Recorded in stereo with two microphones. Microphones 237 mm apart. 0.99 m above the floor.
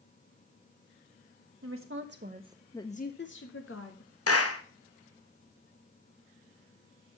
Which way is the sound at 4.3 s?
80° left.